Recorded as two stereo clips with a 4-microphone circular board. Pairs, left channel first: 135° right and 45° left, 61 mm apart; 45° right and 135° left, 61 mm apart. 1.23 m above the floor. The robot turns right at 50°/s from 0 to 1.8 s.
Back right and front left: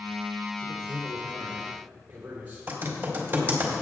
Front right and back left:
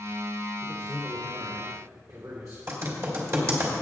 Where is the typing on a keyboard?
100° left, 2.5 m.